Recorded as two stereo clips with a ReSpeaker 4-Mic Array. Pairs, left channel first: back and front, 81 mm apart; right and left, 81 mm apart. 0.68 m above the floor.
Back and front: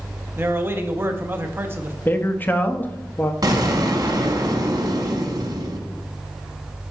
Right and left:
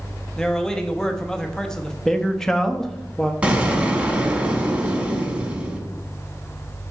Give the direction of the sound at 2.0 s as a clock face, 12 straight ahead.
6 o'clock.